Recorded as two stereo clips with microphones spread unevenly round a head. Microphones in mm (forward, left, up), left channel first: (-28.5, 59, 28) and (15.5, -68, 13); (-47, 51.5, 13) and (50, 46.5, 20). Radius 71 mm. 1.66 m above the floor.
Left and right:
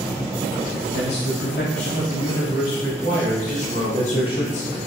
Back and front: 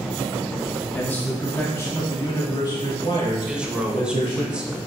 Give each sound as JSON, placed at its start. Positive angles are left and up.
{"t": 0.9, "sound": "a man speaking", "azimuth_deg": 105, "distance_m": 3.0}
{"t": 3.5, "sound": "a man speaking", "azimuth_deg": 75, "distance_m": 1.5}